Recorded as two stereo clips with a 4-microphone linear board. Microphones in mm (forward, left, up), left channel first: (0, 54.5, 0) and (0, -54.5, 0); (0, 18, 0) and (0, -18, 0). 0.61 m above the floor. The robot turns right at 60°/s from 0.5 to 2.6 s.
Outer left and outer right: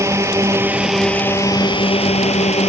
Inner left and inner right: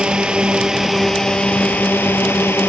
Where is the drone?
25° right; by 2.7 s 100° left.